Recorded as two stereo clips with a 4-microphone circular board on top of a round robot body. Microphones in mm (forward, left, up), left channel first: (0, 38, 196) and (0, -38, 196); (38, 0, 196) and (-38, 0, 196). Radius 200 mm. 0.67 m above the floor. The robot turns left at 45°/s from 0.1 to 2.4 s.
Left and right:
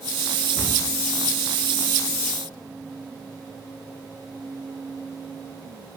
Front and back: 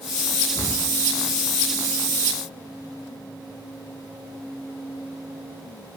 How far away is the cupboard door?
About 1.7 m.